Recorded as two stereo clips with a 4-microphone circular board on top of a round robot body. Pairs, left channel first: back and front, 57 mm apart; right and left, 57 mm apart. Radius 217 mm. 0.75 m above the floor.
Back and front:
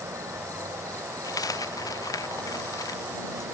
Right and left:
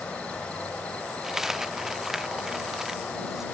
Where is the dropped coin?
175° left.